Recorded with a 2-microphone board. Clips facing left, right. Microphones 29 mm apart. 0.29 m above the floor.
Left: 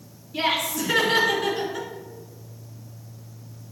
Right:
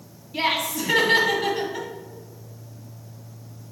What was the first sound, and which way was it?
Laughter, 30° right (ahead or behind).